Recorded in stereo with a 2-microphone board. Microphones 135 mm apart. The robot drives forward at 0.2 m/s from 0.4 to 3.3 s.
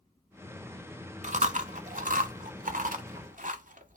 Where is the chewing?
65° right (ahead or behind), 0.6 m; by 4.0 s 75° right (ahead or behind), 0.6 m.